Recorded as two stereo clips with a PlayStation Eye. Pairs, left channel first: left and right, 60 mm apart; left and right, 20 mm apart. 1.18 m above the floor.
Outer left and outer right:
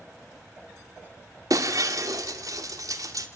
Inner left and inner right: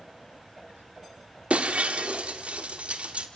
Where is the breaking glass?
70° right (ahead or behind), 1.7 m.